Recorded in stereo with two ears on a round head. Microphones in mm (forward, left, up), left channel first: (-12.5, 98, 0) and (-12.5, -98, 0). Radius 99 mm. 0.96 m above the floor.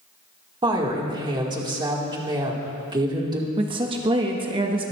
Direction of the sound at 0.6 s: 20° right (ahead or behind).